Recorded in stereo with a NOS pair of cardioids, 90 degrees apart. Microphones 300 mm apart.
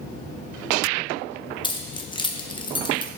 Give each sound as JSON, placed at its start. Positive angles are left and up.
{"t": 1.6, "sound": "keys jangling", "azimuth_deg": 15, "distance_m": 0.8}